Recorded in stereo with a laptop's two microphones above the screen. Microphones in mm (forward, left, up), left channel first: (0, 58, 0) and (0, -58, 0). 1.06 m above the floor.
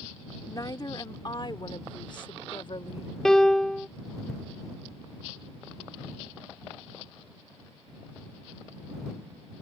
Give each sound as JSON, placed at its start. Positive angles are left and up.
{"t": 0.5, "sound": "a woman speaking", "side_deg": 30}
{"t": 3.2, "sound": "a piano", "side_deg": 5}